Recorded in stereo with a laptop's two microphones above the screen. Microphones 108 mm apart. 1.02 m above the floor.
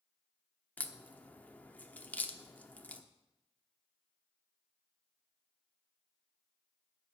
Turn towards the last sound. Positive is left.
turn(degrees=15)  # may be behind; listen again after turning